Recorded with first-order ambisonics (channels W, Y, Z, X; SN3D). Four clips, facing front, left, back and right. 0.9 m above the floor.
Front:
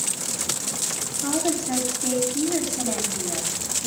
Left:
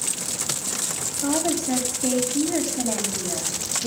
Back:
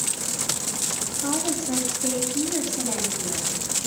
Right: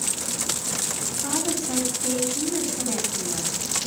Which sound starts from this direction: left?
A woman speaking, at 1.2 s.